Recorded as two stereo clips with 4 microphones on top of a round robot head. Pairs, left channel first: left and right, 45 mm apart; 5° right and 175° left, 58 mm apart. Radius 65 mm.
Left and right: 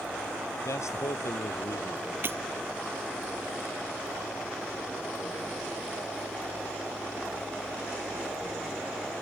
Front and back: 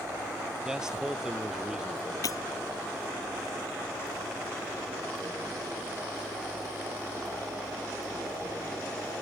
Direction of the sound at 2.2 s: 40° right.